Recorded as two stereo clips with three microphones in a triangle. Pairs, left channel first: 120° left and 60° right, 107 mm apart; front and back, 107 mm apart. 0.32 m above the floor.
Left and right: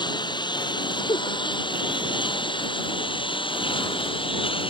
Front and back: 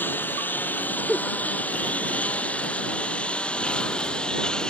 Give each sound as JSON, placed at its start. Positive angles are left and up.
{"t": 0.0, "sound": "a lawn mower", "azimuth_deg": 75}
{"t": 1.1, "sound": "a giggle", "azimuth_deg": 90}